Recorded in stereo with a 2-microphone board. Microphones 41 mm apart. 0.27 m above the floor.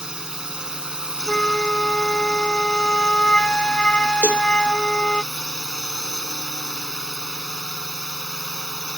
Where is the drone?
20° right (ahead or behind).